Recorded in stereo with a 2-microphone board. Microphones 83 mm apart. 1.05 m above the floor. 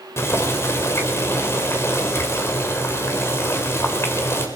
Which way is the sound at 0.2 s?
35° left (ahead or behind).